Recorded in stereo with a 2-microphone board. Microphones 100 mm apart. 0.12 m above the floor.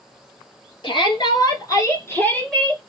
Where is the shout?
45° left (ahead or behind), 2 m; by 2.8 s centre (ahead or behind), 1.5 m.